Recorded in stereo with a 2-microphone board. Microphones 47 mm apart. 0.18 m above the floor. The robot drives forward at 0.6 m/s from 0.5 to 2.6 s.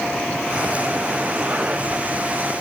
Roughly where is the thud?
I don't hear a thud.